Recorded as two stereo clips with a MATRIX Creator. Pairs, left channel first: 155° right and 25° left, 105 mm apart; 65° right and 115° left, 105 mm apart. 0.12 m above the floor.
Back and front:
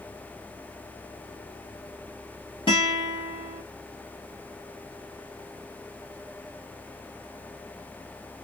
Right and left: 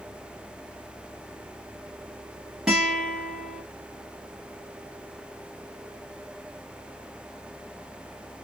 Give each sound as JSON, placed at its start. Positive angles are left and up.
{"t": 2.7, "sound": "a guitar", "azimuth_deg": -165, "distance_m": 2.0}